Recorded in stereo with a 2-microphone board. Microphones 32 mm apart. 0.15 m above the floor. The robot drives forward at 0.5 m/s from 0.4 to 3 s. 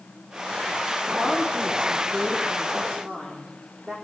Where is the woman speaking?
Centre (ahead or behind), 8 m.